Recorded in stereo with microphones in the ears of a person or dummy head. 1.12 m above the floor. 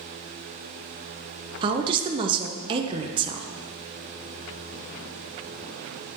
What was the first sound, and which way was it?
A woman speaking, 30° right (ahead or behind).